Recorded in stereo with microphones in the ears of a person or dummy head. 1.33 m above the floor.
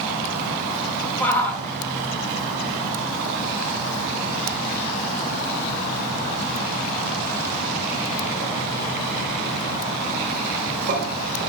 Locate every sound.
1.2 s a shout: 10° left (ahead or behind), 4.5 m; by 11.5 s 55° right (ahead or behind), 6 m